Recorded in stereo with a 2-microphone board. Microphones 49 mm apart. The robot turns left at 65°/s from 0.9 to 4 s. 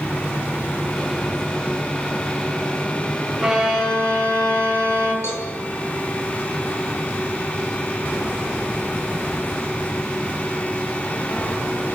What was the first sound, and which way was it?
A violin, 175° right.